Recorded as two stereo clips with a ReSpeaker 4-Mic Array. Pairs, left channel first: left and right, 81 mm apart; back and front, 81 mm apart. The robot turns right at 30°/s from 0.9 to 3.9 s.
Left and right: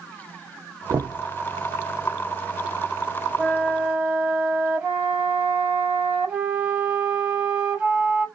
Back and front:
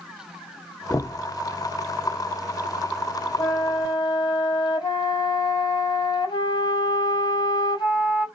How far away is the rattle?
I don't hear a rattle.